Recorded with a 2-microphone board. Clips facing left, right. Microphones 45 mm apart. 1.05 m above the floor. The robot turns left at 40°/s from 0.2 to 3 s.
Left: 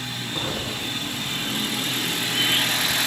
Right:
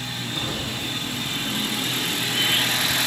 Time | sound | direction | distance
0.3 | an explosion | 50° left | 1.6 m